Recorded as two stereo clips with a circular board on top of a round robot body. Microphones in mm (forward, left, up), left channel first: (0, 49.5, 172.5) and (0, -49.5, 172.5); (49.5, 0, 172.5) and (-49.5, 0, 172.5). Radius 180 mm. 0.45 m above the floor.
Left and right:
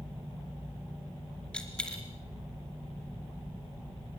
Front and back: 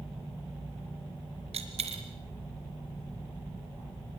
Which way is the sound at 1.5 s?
170° left.